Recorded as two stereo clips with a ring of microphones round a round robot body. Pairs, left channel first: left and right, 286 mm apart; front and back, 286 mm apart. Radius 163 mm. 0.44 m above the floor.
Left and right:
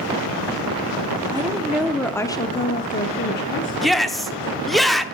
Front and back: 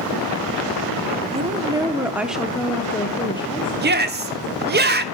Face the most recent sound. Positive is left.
turn(degrees=180)